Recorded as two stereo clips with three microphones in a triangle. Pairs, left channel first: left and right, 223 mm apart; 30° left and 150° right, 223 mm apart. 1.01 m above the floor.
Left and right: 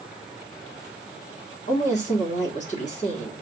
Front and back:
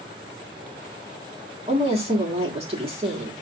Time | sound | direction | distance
1.7 | a woman speaking | 150° left | 1.7 m